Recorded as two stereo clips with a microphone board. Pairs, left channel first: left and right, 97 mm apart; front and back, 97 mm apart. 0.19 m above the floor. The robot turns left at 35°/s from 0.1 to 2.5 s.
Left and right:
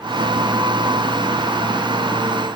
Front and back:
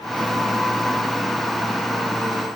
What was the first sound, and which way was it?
Only background noise.